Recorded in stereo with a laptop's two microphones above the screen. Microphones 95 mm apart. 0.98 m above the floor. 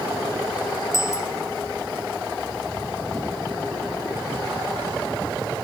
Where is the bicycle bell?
30° left (ahead or behind).